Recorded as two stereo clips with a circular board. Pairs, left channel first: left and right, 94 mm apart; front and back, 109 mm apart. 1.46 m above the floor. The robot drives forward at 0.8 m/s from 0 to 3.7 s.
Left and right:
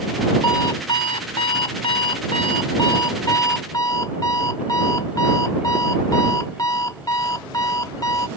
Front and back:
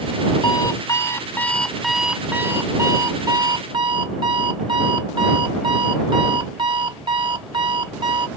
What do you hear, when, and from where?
0.4 s an alarm clock: 50° left; by 8.3 s 140° left